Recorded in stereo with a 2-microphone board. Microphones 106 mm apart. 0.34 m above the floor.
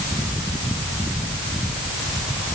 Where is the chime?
I don't hear a chime.